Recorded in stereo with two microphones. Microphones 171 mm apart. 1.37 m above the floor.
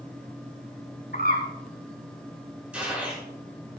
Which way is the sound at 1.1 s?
65° left (ahead or behind).